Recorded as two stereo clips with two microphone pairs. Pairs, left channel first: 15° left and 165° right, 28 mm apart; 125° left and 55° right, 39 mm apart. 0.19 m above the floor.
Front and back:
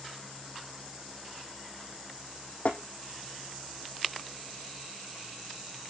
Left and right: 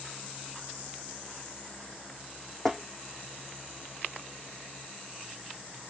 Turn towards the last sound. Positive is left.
turn(degrees=45)